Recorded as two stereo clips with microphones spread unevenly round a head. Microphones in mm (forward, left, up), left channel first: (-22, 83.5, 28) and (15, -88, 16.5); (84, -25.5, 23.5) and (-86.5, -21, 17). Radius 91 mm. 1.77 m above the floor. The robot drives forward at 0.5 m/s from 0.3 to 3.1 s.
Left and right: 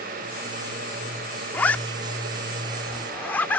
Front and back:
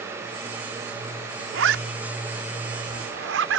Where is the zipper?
175° right; by 3.6 s straight behind.